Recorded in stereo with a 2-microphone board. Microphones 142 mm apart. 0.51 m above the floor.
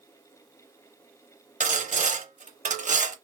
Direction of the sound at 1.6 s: 60° right (ahead or behind).